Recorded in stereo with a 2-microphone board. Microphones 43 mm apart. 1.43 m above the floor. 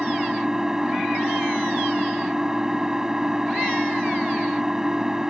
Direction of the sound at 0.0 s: 15° right (ahead or behind).